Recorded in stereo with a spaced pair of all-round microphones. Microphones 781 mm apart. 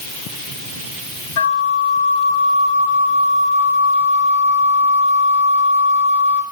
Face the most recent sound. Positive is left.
turn(degrees=45)  # may be behind; listen again after turning